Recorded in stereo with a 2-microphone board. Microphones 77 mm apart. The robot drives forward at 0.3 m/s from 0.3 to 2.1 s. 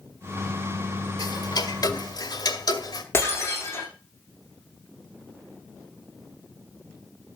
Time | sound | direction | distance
1.2 | ticking | 65° left (ahead or behind) | 1.8 m
3.1 | breaking glass | 30° left (ahead or behind) | 9 m